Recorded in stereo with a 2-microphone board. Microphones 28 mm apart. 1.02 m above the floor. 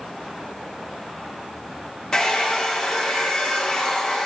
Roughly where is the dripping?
No dripping in this recording.